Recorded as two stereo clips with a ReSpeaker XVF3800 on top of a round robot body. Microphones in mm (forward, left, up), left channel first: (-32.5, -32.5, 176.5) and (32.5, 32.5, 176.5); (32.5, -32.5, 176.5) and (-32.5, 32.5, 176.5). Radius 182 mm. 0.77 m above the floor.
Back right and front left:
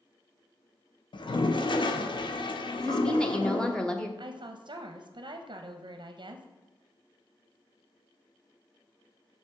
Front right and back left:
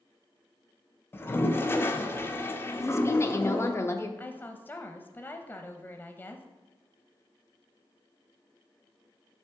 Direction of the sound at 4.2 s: 20° left.